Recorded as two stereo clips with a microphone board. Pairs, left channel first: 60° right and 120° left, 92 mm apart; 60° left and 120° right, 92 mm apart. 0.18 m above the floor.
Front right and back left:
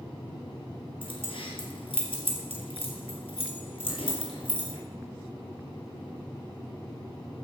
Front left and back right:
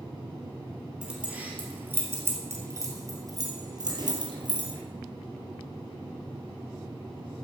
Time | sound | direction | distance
1.0 | keys jangling | 40° right | 3 m